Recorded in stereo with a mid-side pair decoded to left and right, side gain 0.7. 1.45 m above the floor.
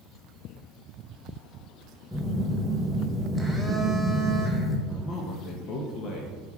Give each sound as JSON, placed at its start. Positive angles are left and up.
{"t": 2.1, "sound": "a phone buzzing", "azimuth_deg": 0, "distance_m": 1.5}
{"t": 4.9, "sound": "a man speaking", "azimuth_deg": 45, "distance_m": 1.5}